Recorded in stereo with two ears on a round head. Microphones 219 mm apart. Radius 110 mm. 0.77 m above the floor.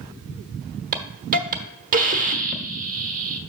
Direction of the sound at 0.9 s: 30° right (ahead or behind).